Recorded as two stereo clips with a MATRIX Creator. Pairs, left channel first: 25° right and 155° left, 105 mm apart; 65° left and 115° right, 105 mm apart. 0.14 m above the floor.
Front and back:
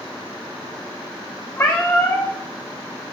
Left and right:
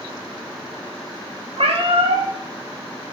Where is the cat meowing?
90° right, 2.5 m.